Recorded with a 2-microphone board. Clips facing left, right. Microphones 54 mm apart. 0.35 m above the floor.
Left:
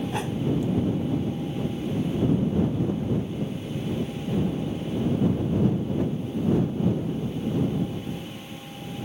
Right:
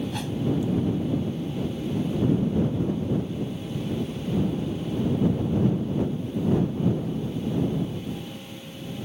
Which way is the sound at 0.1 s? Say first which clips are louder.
Left 2 dB; 25° left (ahead or behind).